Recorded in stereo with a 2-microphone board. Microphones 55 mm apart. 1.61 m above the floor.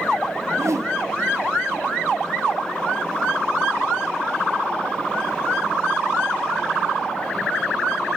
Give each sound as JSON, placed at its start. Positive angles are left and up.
{"t": 0.5, "sound": "a whoosh", "side_deg": -60, "distance_m": 1.1}